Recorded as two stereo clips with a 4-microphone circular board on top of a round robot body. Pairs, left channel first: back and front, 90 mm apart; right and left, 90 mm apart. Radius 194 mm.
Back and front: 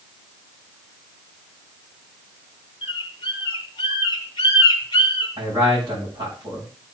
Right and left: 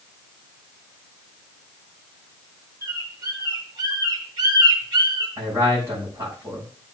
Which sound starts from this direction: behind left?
A bird, at 2.8 s.